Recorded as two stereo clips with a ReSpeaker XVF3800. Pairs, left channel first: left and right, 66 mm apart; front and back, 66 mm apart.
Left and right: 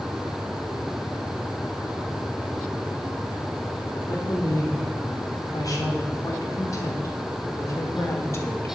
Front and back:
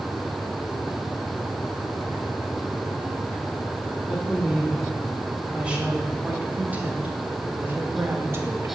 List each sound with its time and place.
4.1 s a woman speaking: 105° left, 4 m; by 8.7 s 140° left, 1.8 m